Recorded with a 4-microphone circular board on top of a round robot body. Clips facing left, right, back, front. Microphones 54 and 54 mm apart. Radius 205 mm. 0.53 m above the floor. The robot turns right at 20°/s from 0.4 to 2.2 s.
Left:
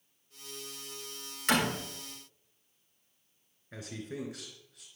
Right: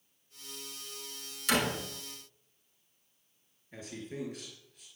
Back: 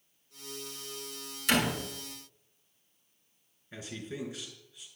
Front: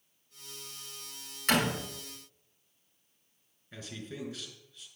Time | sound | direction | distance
1.5 | a door slam | 45° left | 5 m
3.7 | a man speaking | 95° left | 4 m